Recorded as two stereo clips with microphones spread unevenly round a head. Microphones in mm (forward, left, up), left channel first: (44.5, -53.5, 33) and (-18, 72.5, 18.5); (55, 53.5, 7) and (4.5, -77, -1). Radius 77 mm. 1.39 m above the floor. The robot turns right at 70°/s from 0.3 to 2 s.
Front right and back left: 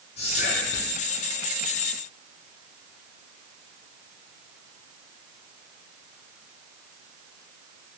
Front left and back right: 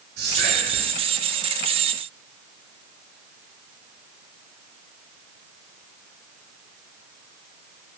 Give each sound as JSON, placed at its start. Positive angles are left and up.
{"t": 0.2, "sound": "whispering", "azimuth_deg": -115, "distance_m": 0.6}